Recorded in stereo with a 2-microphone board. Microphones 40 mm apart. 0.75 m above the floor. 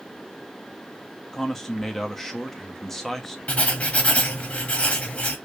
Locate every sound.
1.3 s a man speaking: 5° left (ahead or behind), 0.7 m
3.5 s writing: 35° left (ahead or behind), 0.9 m